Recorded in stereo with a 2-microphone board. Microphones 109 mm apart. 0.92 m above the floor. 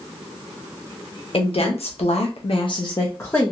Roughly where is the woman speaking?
Left.